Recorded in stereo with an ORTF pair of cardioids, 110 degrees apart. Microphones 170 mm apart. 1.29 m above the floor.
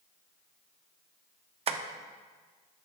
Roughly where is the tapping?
Ahead right.